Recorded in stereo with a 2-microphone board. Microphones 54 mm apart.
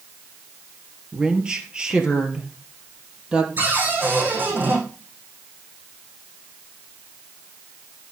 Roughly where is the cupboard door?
Right.